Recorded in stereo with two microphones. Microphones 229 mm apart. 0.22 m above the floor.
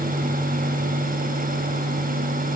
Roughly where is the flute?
I don't hear a flute.